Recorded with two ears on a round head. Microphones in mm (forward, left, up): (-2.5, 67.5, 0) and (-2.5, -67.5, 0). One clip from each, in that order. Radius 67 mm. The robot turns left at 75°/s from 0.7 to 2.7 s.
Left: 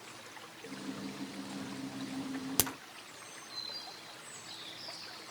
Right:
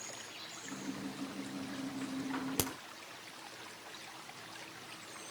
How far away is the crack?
About 1.1 m.